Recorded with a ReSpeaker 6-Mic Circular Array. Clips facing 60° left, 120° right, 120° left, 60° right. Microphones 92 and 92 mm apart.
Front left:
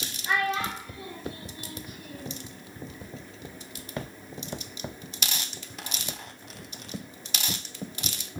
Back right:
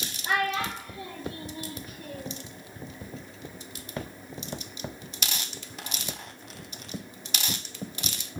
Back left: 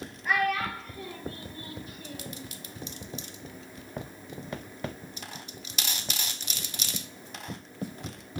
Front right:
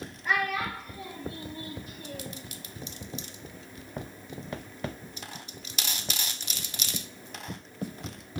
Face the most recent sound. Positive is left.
turn(degrees=-105)